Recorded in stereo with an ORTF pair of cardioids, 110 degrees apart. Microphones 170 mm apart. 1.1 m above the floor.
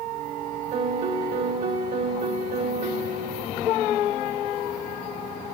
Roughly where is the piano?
Ahead right.